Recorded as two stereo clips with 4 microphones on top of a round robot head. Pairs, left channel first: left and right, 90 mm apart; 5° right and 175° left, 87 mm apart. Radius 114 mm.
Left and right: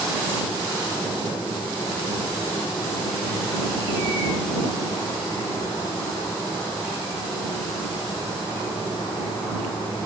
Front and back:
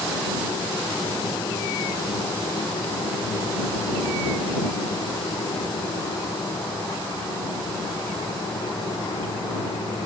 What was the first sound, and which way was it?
Only background noise.